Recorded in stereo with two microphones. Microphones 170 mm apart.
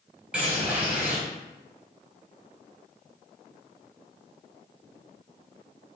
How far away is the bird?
About 0.7 m.